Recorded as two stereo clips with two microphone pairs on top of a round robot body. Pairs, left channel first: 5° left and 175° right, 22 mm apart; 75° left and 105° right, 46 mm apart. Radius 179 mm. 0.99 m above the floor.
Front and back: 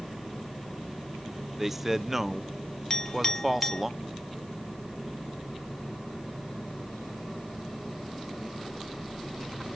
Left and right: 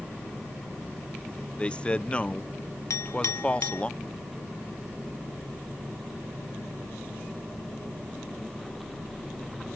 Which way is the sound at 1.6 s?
100° left.